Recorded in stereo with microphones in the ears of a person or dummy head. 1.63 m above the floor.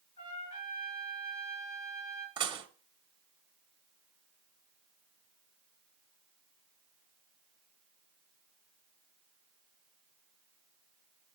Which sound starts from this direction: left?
A trumpet, at 0.2 s.